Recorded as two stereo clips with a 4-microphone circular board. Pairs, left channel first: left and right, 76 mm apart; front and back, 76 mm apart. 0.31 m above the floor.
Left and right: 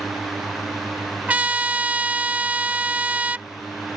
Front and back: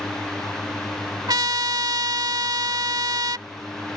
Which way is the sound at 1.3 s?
160° right.